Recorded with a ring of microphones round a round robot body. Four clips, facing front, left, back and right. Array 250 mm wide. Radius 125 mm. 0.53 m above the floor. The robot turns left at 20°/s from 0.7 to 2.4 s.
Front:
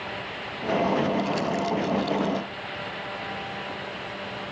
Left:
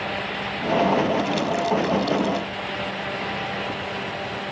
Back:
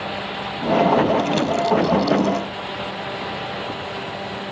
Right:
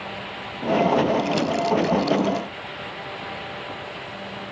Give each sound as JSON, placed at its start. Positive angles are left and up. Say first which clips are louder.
{"t": 1.2, "sound": "crumpling", "louder": "right 1 dB, back 6 dB", "azimuth_deg": -140}